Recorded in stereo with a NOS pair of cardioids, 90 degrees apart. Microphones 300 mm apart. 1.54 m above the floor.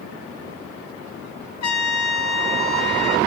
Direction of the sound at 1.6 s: 65° left.